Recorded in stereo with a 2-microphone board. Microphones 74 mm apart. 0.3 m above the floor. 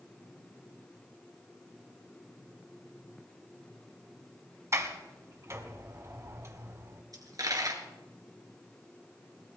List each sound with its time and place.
4.7 s a sliding door: 35° right (ahead or behind), 1.8 m
7.1 s a dropped coin: 50° right (ahead or behind), 2.5 m